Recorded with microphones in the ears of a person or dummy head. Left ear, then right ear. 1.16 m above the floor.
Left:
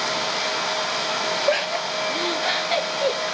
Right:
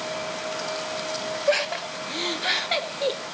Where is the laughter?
10° right (ahead or behind), 1.2 m.